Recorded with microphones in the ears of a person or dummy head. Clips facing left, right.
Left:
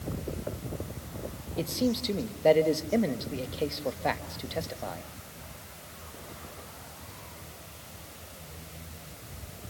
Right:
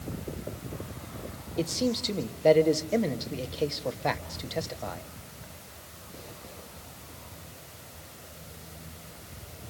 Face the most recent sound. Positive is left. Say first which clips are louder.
# even
turn(degrees=0)  # may be behind; listen again after turning